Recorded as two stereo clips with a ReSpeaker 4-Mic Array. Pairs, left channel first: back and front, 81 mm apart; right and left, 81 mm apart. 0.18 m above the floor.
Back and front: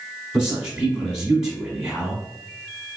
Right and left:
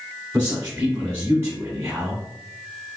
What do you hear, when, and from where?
0.3 s a man speaking: 65° left, 1.2 m